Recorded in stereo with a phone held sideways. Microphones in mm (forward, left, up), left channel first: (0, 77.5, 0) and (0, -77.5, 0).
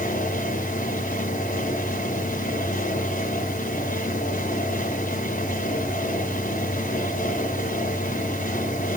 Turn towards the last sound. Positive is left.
turn(degrees=60)  # may be behind; listen again after turning